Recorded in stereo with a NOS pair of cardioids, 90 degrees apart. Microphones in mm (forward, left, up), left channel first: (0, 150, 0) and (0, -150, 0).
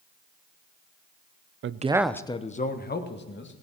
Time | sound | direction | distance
1.6 | a man speaking | 45° right | 0.6 m